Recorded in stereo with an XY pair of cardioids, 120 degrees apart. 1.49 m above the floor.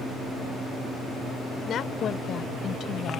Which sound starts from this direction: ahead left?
A woman speaking, at 1.7 s.